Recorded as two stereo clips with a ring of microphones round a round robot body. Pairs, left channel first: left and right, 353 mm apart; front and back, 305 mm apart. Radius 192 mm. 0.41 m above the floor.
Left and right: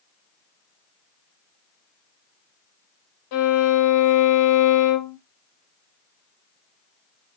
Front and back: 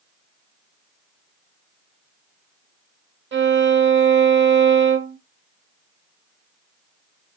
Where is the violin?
125° left, 0.8 m.